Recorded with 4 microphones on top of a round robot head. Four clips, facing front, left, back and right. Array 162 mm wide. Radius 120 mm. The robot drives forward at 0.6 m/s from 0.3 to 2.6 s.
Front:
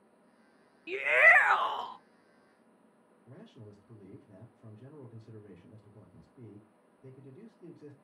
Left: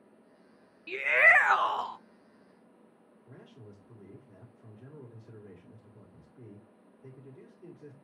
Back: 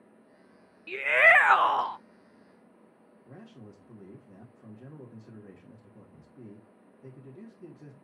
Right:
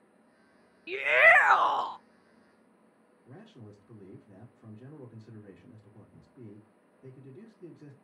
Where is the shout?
50° right, 0.6 m; by 2.0 s 165° right, 0.8 m.